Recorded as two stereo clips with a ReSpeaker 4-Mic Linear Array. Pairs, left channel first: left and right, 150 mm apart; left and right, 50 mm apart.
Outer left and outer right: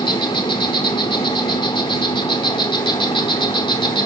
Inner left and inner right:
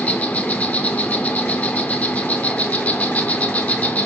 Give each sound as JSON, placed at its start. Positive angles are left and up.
{"t": 0.0, "sound": "an insect", "side_deg": 30, "distance_m": 0.9}